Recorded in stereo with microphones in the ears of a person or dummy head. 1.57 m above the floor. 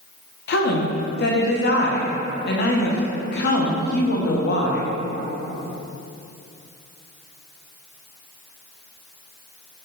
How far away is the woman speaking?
About 1.5 m.